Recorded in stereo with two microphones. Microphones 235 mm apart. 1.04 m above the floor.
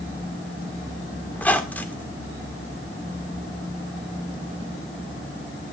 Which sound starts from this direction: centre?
A squeak, at 1.3 s.